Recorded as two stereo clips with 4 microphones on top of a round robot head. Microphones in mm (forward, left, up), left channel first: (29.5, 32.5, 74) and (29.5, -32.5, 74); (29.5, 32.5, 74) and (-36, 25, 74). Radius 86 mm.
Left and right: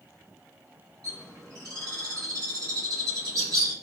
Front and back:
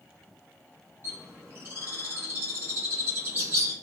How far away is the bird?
About 1.2 m.